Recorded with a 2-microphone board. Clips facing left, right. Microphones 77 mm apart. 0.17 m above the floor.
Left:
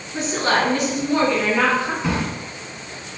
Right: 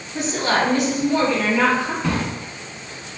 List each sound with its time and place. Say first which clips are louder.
0.1 s a woman speaking: even; 50° left (ahead or behind), 1.4 m
2.0 s a drawer: even; 5° left (ahead or behind), 0.6 m